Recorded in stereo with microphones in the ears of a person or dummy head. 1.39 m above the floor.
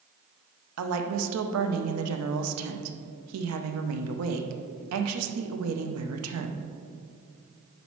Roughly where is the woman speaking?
Right.